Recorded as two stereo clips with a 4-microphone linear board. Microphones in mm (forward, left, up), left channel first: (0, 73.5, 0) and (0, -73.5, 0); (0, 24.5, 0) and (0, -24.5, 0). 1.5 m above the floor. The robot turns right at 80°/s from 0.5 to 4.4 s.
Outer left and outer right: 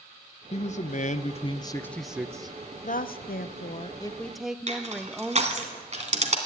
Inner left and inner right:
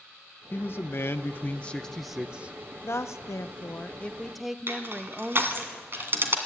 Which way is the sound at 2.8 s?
60° left.